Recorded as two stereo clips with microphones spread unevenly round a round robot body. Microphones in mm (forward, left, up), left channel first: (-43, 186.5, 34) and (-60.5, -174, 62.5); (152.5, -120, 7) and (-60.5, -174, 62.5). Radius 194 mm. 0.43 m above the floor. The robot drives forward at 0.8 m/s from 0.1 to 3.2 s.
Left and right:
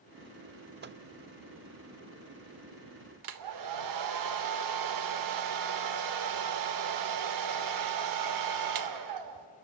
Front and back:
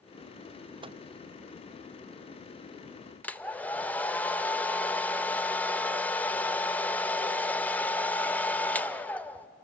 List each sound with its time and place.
0.8 s a microwave: 85° right, 0.6 m; by 1.0 s 130° right, 0.6 m
3.2 s a hair dryer: 60° right, 1.0 m